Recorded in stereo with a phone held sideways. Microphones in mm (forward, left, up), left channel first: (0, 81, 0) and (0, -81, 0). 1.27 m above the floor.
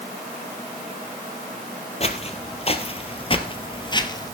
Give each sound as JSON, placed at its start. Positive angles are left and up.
{"t": 2.0, "sound": "footsteps", "side_deg": 40, "distance_m": 1.7}